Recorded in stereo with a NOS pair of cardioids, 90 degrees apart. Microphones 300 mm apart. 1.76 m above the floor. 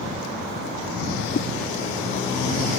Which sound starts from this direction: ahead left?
A whoosh, at 1.4 s.